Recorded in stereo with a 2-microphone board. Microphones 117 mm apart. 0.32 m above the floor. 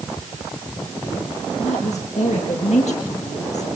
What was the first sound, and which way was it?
A woman speaking, 80° left.